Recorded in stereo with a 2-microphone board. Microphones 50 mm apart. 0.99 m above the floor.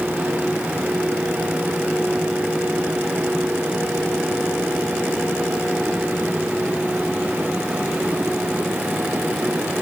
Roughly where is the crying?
No crying in this recording.